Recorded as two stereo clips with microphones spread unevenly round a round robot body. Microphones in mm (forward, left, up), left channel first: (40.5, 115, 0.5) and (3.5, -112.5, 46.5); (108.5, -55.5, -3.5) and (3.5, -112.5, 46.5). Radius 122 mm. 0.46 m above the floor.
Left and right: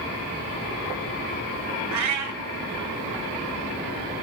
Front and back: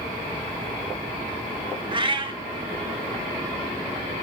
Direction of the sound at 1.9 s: 110° right.